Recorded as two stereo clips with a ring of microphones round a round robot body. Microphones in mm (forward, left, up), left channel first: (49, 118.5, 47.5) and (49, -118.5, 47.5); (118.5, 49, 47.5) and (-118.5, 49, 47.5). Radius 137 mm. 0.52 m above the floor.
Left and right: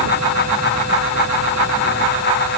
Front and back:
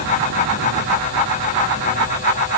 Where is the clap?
I don't hear a clap.